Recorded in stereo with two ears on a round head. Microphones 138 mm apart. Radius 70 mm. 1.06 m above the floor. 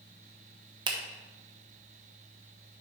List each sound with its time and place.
0.9 s a finger snap: 30° right (ahead or behind), 1.0 m